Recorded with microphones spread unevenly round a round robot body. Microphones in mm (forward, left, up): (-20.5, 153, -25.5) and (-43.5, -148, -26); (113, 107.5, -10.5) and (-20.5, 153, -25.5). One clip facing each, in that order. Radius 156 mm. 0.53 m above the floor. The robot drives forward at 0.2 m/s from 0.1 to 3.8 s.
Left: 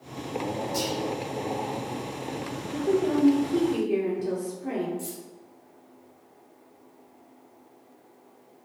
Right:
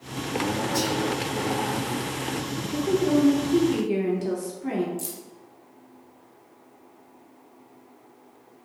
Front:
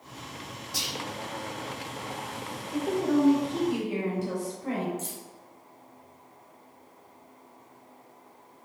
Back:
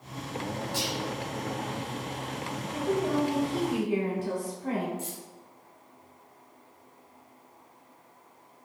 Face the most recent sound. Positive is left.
turn(degrees=-110)